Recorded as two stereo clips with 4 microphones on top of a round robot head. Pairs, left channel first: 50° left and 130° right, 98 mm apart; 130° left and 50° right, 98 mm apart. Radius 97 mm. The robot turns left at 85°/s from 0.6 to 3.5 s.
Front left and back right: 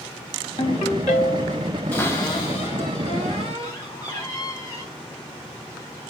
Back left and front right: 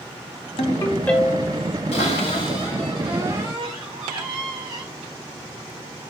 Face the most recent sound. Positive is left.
turn(degrees=-5)